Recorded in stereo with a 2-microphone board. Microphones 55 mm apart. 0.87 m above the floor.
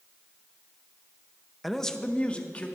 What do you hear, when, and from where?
1.6 s a man speaking: centre (ahead or behind), 0.7 m; by 2.7 s 25° left (ahead or behind), 1.7 m